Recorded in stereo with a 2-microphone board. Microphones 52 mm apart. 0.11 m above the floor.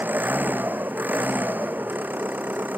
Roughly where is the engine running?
Right.